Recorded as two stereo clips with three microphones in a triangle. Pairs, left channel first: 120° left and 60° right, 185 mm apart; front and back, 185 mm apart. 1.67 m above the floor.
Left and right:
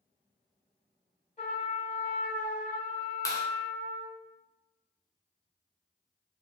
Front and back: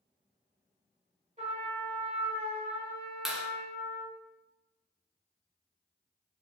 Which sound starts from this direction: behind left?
A trumpet, at 1.4 s.